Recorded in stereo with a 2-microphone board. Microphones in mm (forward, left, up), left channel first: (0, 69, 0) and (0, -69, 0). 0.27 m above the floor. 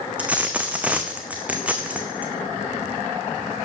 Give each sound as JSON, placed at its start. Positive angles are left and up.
{"t": 0.2, "sound": "a dropped coin", "side_deg": -10, "distance_m": 1.2}